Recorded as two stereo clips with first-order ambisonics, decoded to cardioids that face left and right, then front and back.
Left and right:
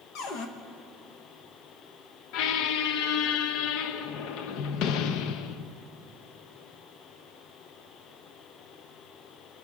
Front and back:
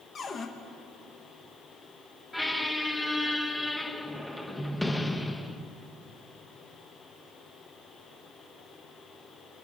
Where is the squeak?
85° left, 0.6 m.